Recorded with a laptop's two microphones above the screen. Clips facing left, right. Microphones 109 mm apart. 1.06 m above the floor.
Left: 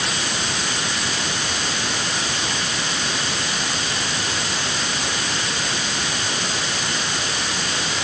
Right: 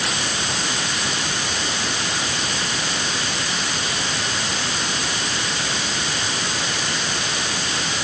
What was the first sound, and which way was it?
Only background noise.